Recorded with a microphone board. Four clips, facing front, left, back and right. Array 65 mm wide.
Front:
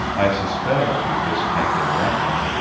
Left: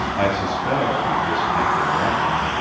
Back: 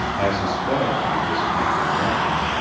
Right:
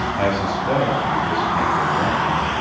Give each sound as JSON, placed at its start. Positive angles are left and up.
{"t": 0.2, "sound": "a man speaking", "azimuth_deg": 20, "distance_m": 1.3}